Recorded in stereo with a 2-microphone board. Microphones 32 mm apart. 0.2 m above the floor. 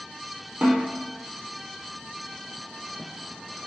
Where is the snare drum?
40° right (ahead or behind), 3.5 m.